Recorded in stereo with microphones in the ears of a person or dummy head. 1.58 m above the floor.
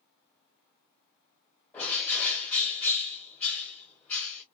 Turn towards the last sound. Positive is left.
turn(degrees=15)  # may be behind; listen again after turning